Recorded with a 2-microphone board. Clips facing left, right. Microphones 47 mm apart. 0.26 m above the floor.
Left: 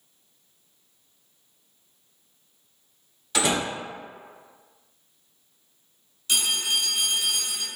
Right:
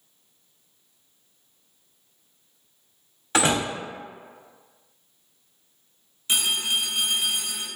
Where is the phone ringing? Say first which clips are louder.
Right 1 dB; 25° right (ahead or behind), 1.0 m.